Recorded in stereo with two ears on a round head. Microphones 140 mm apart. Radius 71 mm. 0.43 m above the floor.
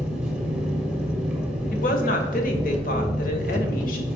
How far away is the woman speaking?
About 1.3 m.